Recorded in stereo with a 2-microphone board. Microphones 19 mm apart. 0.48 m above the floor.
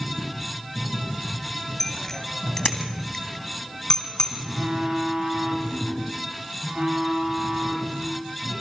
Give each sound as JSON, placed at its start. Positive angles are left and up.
{"t": 1.8, "sound": "a bicycle bell", "side_deg": 20, "distance_m": 2.0}
{"t": 4.4, "sound": "a phone buzzing", "side_deg": -55, "distance_m": 8.5}